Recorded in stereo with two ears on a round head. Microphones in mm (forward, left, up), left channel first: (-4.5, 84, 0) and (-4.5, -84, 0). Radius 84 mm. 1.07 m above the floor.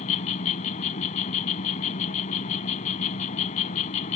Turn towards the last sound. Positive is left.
turn(degrees=40)  # may be behind; listen again after turning